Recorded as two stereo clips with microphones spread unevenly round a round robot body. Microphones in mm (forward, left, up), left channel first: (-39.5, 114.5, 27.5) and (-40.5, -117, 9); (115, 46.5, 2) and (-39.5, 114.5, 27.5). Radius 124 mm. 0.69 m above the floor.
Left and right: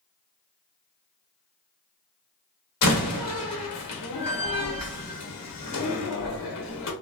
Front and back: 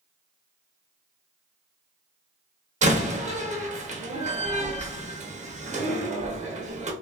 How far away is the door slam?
About 0.9 m.